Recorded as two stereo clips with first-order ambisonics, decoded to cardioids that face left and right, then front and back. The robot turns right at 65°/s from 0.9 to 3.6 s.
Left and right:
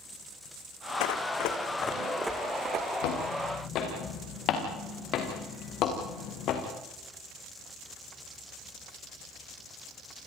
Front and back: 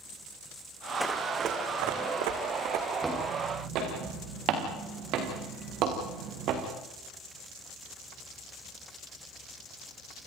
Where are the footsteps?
100° left, 7 m; by 6.6 s 135° left, 4.5 m.